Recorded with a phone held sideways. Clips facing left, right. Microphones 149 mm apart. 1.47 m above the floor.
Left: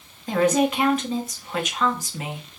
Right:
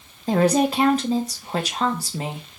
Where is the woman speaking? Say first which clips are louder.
Right 1 dB; 35° right (ahead or behind), 0.8 m.